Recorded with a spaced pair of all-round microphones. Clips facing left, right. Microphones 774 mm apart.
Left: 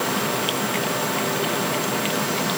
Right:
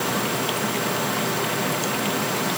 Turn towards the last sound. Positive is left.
No sound to turn to.